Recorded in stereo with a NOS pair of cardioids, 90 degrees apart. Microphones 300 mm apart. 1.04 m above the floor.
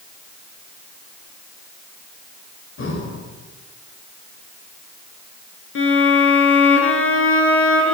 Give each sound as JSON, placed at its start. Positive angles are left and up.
{"t": 2.8, "sound": "breathing", "azimuth_deg": 40, "distance_m": 4.0}
{"t": 5.8, "sound": "a violin", "azimuth_deg": 45, "distance_m": 4.5}